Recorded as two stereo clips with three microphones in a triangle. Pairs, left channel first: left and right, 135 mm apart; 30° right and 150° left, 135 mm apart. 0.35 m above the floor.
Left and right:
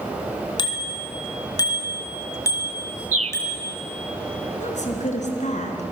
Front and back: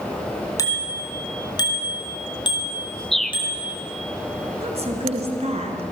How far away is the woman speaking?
About 3.5 m.